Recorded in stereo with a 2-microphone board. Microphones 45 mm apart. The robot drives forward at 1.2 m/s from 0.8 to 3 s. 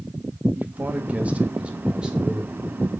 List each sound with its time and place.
0.6 s a man speaking: 40° right (ahead or behind), 1.4 m; by 2.7 s 15° right (ahead or behind), 3 m